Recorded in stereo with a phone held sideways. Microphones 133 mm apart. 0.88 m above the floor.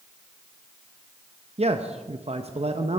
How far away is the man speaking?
About 0.6 m.